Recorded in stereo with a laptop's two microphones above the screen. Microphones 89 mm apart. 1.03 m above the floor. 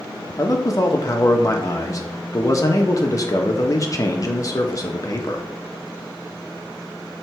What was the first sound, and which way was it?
A man speaking, 40° left (ahead or behind).